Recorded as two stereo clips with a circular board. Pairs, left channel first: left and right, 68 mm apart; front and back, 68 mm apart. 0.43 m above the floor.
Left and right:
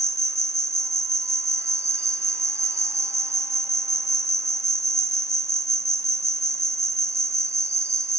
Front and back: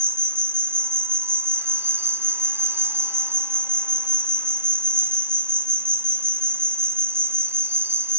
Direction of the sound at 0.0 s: 125° right.